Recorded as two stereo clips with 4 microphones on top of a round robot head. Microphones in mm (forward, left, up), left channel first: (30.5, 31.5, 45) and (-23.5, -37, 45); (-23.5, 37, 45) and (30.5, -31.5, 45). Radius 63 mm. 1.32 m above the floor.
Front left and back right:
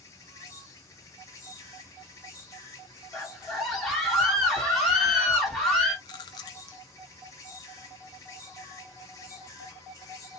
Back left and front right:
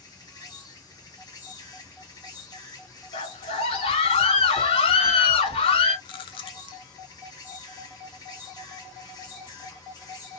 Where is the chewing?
100° left, 0.6 m.